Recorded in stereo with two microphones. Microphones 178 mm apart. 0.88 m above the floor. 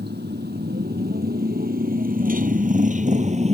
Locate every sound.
0.0 s a motorcycle: 70° right (ahead or behind); by 3.5 s 35° right (ahead or behind)